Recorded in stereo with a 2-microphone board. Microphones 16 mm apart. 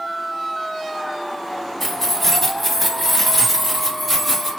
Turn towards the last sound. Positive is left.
turn(degrees=-10)  # may be behind; listen again after turning